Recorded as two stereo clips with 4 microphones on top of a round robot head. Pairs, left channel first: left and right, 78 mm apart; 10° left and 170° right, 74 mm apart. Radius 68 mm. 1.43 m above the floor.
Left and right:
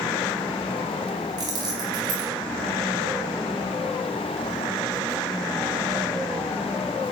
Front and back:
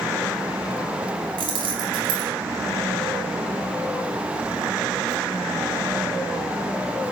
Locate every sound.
1.4 s keys jangling: 140° right, 1.8 m